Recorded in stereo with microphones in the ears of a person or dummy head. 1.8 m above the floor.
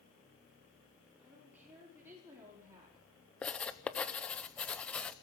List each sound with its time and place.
1.2 s a woman speaking: 5° right (ahead or behind), 5.5 m; by 3.0 s 20° right (ahead or behind), 4.5 m
3.4 s writing: 5° left (ahead or behind), 0.7 m